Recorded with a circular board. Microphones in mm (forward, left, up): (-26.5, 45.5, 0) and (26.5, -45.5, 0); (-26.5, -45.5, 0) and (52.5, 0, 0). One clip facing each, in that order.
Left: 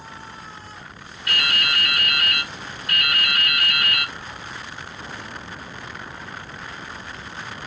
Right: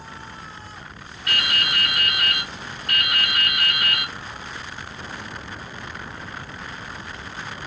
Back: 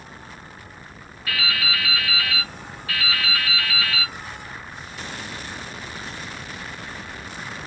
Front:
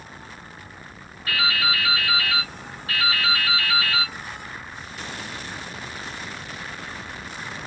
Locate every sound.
1.3 s dripping: 25° right, 1.6 m